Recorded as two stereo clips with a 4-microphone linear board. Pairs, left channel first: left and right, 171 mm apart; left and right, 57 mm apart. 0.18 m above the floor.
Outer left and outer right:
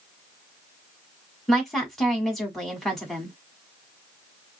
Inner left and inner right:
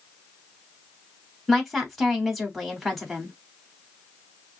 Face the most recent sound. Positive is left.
turn(degrees=0)  # may be behind; listen again after turning